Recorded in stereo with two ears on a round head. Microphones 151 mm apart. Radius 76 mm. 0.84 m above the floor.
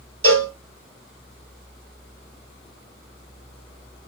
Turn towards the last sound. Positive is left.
turn(degrees=-40)  # may be behind; listen again after turning